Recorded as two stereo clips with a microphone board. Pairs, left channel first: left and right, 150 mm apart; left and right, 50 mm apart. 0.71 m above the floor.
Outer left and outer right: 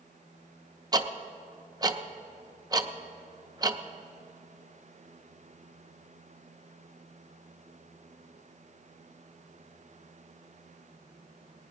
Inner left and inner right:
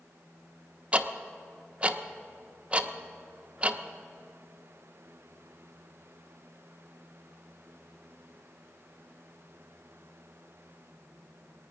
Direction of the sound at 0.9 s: 25° right (ahead or behind).